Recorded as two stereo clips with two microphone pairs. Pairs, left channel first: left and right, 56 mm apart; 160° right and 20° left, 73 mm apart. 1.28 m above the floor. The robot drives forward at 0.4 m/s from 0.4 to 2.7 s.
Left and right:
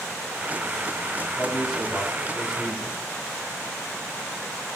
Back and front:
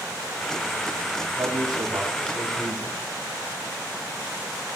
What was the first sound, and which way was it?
A man speaking, 5° right.